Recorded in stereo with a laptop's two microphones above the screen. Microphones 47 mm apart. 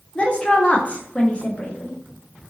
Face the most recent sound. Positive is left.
turn(degrees=25)  # may be behind; listen again after turning